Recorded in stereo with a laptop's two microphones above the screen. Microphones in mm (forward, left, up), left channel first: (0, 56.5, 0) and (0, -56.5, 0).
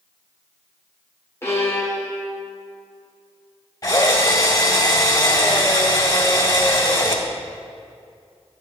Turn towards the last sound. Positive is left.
turn(degrees=35)  # may be behind; listen again after turning